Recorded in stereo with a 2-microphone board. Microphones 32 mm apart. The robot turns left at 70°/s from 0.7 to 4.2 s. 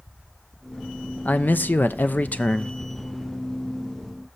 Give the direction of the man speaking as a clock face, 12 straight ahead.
8 o'clock.